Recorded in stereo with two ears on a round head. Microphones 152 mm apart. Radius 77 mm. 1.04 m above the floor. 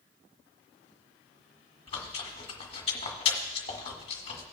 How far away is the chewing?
About 1.7 m.